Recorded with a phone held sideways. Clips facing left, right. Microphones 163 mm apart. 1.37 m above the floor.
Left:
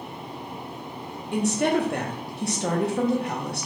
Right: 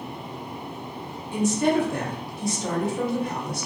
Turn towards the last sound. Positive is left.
turn(degrees=65)  # may be behind; listen again after turning